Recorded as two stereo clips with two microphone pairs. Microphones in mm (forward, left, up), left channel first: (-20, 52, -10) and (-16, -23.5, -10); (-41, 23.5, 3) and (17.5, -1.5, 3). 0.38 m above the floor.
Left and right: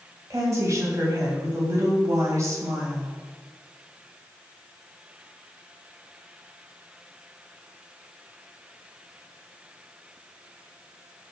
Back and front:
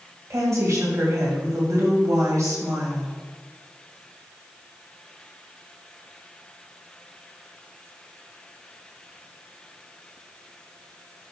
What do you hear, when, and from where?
0.3 s a woman speaking: 45° right, 3 m